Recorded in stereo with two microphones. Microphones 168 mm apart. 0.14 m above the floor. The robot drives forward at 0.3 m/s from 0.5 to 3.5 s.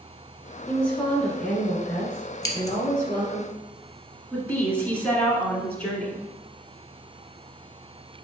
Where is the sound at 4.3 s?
10° left (ahead or behind), 1.4 m.